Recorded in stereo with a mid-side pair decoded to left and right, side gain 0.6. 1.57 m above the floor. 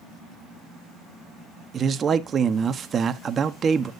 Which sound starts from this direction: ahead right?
A man speaking, at 1.7 s.